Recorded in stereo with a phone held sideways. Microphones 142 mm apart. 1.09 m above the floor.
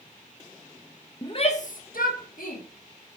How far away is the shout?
About 0.9 m.